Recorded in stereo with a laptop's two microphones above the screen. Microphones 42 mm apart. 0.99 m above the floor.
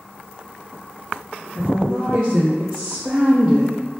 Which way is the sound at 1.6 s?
45° right (ahead or behind).